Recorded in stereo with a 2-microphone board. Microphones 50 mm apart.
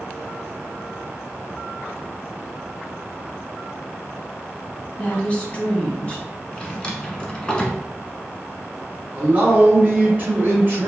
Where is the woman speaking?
25° left (ahead or behind), 1.8 m.